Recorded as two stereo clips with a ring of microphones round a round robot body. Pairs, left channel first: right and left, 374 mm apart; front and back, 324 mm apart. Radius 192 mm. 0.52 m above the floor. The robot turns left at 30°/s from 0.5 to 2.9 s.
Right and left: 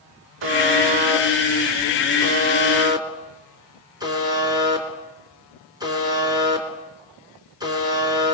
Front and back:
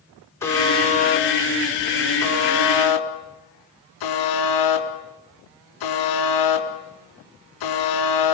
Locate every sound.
0.4 s a buzzer: 80° left, 4 m; by 8.3 s 10° left, 4 m